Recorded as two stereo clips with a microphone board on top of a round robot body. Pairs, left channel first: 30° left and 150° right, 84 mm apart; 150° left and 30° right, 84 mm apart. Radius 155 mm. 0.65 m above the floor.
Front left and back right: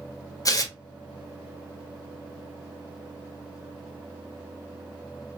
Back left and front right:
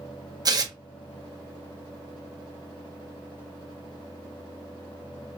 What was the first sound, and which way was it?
Tearing paper, 5° right.